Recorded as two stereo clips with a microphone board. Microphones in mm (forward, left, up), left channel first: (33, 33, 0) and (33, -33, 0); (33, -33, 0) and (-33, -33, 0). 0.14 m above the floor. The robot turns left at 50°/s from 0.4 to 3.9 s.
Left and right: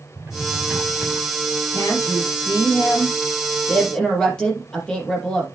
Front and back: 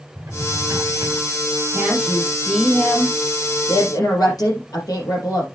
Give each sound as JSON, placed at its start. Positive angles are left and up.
{"t": 0.1, "sound": "a drawer", "azimuth_deg": -155, "distance_m": 6.5}
{"t": 1.7, "sound": "a woman speaking", "azimuth_deg": 120, "distance_m": 4.5}